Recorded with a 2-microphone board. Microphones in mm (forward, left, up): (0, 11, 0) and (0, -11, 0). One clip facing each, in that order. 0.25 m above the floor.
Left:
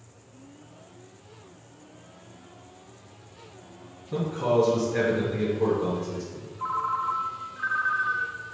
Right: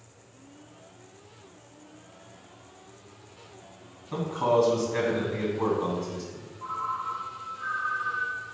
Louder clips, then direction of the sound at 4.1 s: Even; 55° right (ahead or behind).